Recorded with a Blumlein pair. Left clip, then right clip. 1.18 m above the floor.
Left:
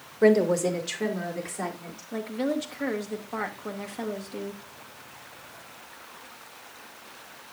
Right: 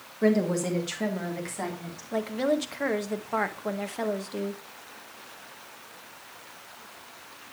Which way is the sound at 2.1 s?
15° right.